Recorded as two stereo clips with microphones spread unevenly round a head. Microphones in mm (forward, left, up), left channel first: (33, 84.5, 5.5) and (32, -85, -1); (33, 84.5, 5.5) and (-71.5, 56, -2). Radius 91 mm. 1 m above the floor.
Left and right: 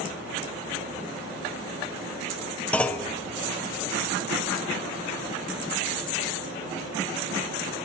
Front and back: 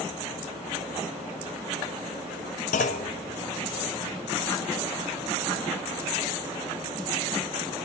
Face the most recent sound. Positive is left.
turn(degrees=5)